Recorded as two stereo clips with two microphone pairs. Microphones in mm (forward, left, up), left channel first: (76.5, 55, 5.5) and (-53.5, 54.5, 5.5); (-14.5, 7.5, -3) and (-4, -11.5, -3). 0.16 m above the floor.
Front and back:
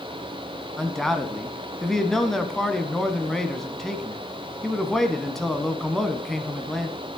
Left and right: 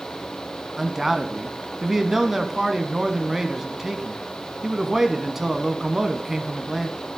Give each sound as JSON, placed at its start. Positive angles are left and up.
{"t": 0.8, "sound": "a man speaking", "azimuth_deg": -80, "distance_m": 1.0}